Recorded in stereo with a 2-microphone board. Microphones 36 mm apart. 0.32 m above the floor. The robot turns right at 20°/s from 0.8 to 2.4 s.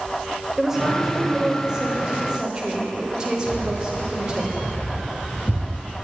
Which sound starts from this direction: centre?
A woman speaking, at 0.6 s.